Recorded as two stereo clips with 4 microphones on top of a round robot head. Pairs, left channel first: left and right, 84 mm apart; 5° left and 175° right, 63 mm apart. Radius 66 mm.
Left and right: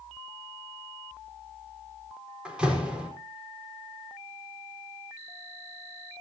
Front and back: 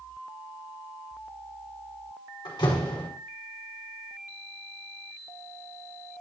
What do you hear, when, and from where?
2.5 s a door slam: 10° right, 5 m